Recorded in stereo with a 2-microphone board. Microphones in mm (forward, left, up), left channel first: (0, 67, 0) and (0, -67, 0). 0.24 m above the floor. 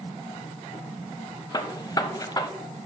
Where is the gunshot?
30° left (ahead or behind), 0.8 m.